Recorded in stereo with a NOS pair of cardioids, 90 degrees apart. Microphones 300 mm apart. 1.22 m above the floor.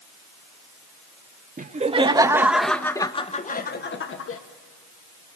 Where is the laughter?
25° right, 2 m; by 4.4 s 50° left, 2 m.